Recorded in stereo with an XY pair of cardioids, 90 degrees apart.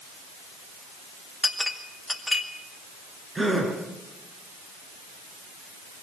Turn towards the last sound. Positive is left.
turn(degrees=-25)